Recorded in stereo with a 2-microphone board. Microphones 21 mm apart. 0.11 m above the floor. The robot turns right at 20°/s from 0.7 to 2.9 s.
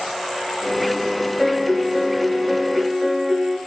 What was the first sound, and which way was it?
A piano, 160° right.